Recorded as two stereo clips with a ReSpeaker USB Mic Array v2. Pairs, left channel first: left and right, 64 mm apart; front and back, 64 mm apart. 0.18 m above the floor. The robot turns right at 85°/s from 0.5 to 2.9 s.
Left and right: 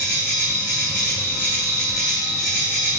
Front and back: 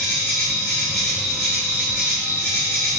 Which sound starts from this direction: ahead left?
An insect, at 0.0 s.